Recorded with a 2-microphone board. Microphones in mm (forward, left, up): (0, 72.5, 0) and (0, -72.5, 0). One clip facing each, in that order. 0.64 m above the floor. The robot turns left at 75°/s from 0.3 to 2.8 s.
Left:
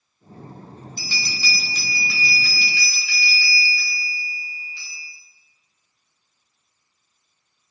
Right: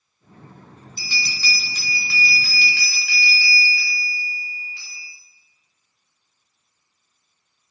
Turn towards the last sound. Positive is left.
turn(degrees=-85)